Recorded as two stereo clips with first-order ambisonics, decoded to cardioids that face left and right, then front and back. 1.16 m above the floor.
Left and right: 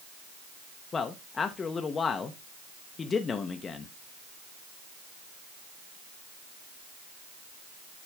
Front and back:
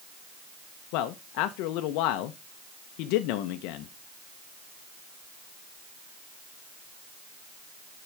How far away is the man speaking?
About 0.6 m.